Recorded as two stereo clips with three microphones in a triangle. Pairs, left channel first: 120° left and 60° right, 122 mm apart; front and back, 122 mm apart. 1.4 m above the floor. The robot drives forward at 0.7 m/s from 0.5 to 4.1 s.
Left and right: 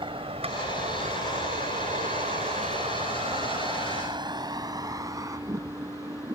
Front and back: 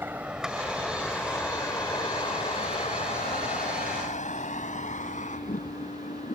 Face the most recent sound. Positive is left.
turn(degrees=5)